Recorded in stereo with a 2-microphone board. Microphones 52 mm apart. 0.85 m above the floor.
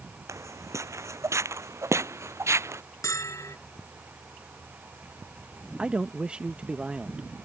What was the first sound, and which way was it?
Footsteps, 70° right (ahead or behind).